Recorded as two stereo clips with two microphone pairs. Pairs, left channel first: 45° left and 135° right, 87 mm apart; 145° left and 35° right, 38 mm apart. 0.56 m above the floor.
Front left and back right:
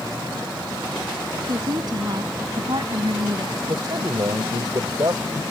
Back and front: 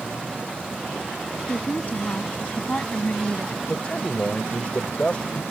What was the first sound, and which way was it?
A woman speaking, 170° right.